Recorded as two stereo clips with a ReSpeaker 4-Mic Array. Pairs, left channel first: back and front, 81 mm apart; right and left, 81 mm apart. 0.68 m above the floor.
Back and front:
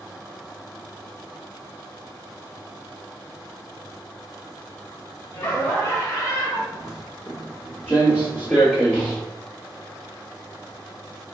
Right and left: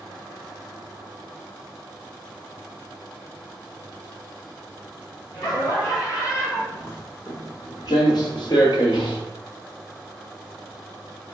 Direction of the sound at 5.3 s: 115° right.